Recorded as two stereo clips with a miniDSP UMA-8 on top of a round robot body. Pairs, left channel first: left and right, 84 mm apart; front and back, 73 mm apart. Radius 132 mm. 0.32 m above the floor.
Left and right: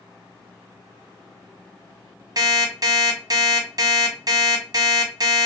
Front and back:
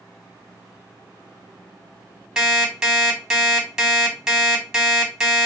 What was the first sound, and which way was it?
An alarm clock, 100° right.